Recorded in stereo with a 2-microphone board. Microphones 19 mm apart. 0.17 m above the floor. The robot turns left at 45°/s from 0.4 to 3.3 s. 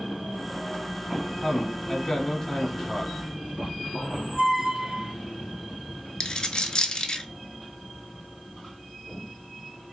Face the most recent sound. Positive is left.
turn(degrees=40)  # may be behind; listen again after turning